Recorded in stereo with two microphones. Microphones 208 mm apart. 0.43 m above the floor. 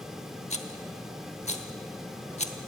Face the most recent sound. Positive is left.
turn(degrees=30)  # may be behind; listen again after turning